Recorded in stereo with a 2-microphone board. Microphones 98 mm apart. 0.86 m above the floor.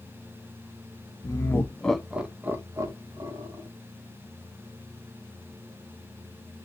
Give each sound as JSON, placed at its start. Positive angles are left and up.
{"t": 1.2, "sound": "laughter", "side_deg": 40, "distance_m": 0.7}